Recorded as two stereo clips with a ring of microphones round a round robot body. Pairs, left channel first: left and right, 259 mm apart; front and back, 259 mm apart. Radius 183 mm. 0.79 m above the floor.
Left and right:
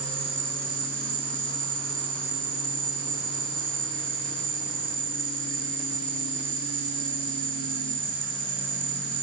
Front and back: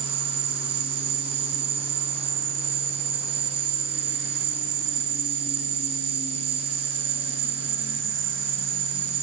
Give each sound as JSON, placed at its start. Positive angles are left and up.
{"t": 0.0, "sound": "an insect", "azimuth_deg": -165, "distance_m": 2.0}